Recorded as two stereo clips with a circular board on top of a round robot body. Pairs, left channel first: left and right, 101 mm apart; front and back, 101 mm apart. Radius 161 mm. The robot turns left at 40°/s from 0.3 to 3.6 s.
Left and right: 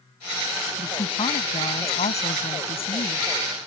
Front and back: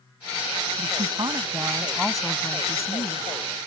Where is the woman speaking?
145° left; by 3.3 s 45° left.